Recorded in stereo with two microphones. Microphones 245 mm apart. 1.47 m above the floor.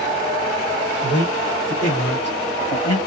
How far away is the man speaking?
About 2 m.